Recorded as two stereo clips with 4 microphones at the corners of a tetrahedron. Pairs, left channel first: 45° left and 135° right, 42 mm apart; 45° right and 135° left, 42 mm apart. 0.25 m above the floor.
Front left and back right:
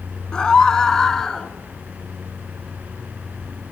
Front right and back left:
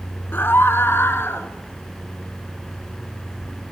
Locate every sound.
0.3 s a scream: 25° right, 2.5 m; by 1.5 s 35° right, 3.5 m